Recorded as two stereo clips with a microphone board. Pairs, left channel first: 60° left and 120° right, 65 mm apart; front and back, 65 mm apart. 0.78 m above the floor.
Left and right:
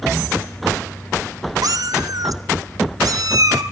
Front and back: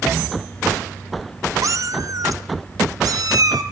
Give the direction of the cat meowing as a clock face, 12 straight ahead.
5 o'clock.